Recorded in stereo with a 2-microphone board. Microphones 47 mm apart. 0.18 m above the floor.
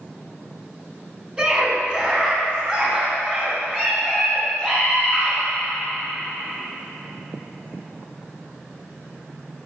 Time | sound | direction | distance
1.4 | a scream | 25° right (ahead or behind) | 1.7 m